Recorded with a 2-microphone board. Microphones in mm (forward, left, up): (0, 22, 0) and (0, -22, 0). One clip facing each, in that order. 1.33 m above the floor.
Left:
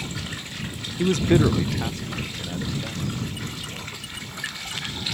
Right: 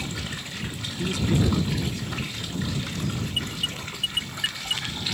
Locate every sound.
1.0 s a man speaking: 35° left (ahead or behind); by 3.2 s 40° left (ahead or behind)
3.3 s an alarm: 70° right (ahead or behind)